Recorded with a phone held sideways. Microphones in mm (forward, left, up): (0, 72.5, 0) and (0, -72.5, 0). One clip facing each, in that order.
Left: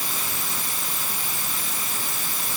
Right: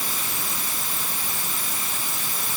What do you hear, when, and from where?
Only background noise.